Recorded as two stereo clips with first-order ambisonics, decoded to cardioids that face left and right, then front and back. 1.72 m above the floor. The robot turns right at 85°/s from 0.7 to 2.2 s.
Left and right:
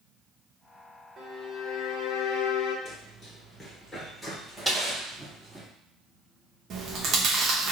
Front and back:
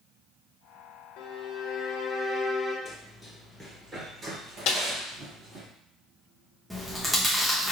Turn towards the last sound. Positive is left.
turn(degrees=-95)